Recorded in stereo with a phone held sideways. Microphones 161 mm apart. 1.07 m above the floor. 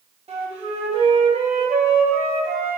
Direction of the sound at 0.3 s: 40° right (ahead or behind).